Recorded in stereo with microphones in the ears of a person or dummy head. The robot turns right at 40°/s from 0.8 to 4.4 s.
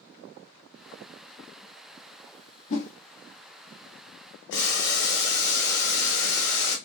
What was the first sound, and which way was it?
A whoosh, 35° left (ahead or behind).